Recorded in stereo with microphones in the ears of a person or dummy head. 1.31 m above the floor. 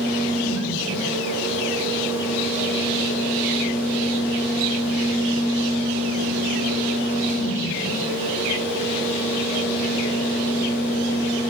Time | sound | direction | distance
0.0 | a fan | 80° left | 3 m